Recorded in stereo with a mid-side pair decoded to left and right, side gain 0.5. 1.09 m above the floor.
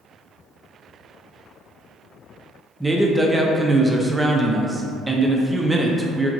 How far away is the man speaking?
About 0.5 m.